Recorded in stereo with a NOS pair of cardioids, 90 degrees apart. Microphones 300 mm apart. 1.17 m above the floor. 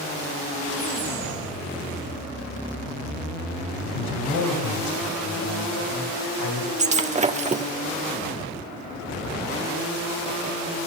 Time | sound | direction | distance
3.9 | a man speaking | 65° left | 8.5 m
6.8 | breaking glass | 25° right | 1.5 m